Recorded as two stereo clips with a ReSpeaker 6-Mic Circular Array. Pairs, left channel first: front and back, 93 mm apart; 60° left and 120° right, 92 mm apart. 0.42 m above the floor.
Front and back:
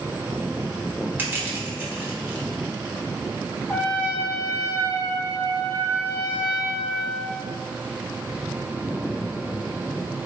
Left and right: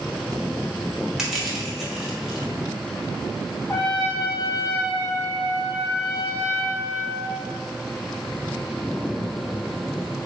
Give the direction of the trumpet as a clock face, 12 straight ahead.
11 o'clock.